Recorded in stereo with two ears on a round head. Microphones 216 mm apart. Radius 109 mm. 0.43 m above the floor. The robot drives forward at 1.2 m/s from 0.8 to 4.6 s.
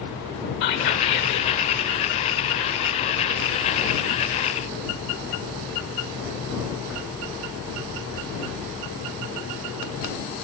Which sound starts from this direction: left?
Whispering, at 0.6 s.